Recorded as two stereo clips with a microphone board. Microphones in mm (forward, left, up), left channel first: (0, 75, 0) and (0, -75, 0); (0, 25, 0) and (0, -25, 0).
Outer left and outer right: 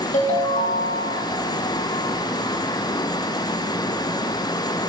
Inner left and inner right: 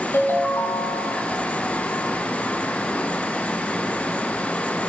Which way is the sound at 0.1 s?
55° left (ahead or behind).